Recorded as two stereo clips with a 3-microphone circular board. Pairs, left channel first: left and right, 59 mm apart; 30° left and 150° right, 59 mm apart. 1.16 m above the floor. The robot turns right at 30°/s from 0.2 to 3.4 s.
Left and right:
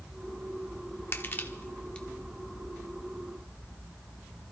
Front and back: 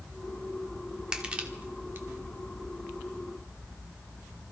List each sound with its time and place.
1.1 s crushing: 135° left, 1.3 m; by 2.1 s 165° left, 1.3 m